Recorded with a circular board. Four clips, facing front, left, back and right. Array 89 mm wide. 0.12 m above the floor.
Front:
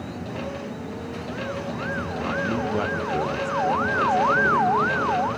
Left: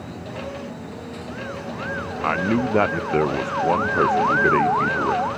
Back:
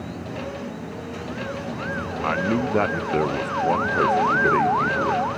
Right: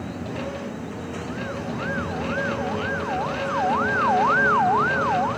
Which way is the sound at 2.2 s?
110° left.